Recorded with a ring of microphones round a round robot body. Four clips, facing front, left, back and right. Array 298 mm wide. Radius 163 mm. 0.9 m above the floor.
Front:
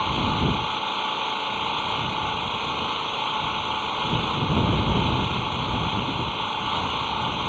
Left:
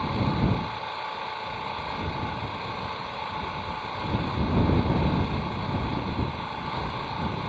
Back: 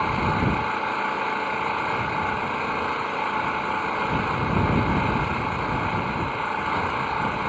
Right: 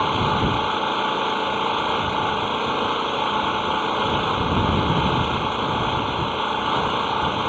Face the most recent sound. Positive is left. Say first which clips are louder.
# right 6 dB, back 1 dB
turn(degrees=-105)